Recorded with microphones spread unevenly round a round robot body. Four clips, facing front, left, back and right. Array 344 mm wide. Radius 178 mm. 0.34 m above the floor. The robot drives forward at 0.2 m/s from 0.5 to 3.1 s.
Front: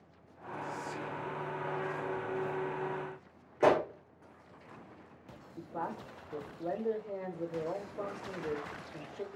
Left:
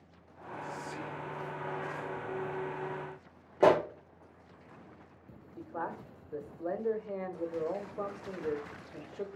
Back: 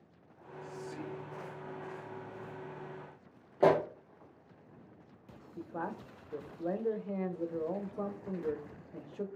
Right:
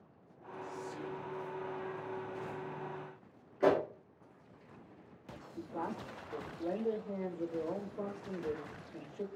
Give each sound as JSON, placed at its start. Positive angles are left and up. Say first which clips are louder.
{"t": 0.6, "sound": "whispering", "louder": "left 2 dB, front 2 dB", "azimuth_deg": 65, "distance_m": 2.5}
{"t": 3.6, "sound": "a pop", "louder": "left 5 dB, even", "azimuth_deg": 105, "distance_m": 2.5}
{"t": 5.6, "sound": "a man speaking", "louder": "left 1 dB, front 1 dB", "azimuth_deg": 130, "distance_m": 1.0}